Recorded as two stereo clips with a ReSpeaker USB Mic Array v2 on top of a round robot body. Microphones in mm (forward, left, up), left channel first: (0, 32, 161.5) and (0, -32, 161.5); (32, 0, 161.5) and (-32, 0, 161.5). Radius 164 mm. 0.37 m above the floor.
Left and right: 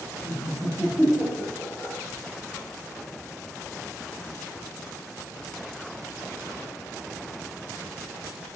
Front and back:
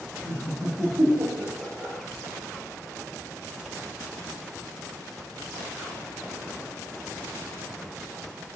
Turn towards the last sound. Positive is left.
turn(degrees=115)